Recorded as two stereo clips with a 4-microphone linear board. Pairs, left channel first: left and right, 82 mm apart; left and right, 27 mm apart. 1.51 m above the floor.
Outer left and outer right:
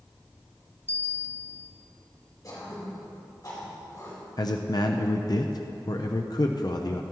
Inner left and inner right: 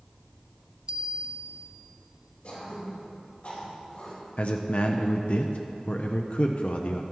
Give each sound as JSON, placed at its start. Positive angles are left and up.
{"t": 0.9, "sound": "a bell", "side_deg": -25, "distance_m": 0.6}
{"t": 2.4, "sound": "throat clearing", "side_deg": 45, "distance_m": 4.0}
{"t": 4.4, "sound": "a man speaking", "side_deg": 55, "distance_m": 0.6}